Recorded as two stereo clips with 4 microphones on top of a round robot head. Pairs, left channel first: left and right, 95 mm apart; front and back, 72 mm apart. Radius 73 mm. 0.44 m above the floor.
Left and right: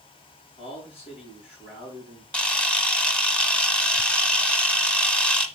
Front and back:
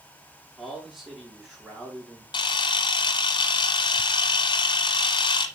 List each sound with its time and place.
0.6 s a man speaking: 90° left, 4.5 m
2.3 s a camera shutter: 10° left, 0.9 m